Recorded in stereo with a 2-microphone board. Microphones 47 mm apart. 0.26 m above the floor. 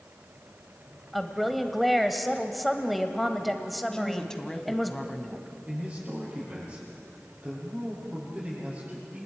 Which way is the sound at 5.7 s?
30° right (ahead or behind).